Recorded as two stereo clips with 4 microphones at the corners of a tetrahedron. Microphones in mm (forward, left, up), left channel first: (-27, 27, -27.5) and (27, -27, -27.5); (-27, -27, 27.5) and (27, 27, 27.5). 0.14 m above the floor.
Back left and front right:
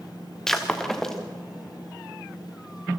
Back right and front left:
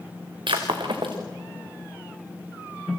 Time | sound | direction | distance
0.5 | breaking glass | 50° left | 3 m